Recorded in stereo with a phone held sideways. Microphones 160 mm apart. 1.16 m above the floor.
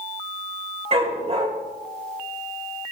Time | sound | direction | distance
0.9 | a dog barking | 40° right (ahead or behind) | 2.5 m